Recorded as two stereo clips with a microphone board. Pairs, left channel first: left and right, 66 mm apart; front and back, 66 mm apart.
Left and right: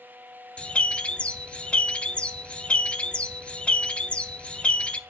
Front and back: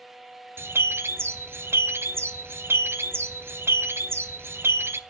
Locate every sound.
0.6 s a bird: 155° left, 0.6 m